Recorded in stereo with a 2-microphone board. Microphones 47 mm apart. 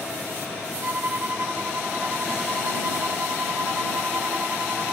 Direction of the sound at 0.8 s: 35° right (ahead or behind).